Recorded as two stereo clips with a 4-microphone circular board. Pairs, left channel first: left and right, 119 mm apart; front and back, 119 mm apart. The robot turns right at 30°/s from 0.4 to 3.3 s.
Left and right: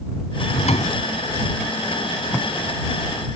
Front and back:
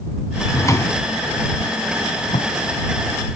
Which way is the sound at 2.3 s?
15° left.